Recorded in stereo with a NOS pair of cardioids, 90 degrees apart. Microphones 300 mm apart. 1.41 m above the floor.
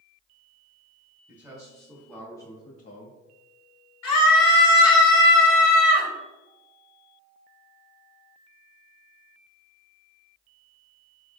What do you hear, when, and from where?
1.3 s a man speaking: 15° right, 1.1 m; by 3.2 s 45° left, 0.6 m
4.0 s a scream: 65° left, 1.5 m